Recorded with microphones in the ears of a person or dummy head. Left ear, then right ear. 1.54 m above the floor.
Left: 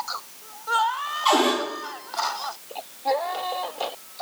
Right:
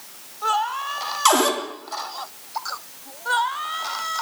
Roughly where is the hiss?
I don't hear a hiss.